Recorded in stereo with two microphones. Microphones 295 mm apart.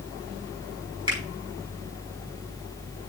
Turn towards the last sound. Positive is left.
turn(degrees=-15)  # may be behind; listen again after turning